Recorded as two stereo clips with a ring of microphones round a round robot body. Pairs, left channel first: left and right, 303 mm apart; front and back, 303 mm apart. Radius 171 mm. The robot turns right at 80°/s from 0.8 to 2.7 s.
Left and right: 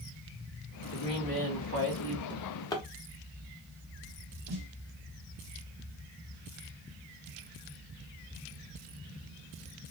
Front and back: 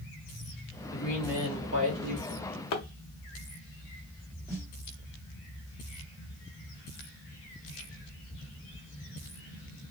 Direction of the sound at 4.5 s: 100° right.